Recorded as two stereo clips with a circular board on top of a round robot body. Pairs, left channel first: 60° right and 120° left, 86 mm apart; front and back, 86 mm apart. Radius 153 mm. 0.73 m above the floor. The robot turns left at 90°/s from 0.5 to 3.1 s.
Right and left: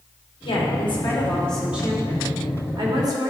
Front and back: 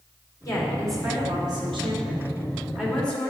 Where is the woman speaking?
50° right, 2.5 m; by 3.3 s 75° left, 2.5 m.